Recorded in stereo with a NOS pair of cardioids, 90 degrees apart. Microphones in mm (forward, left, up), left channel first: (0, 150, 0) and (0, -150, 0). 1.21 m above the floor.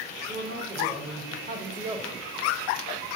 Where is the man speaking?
45° right, 2 m; by 2.2 s 15° right, 1.1 m.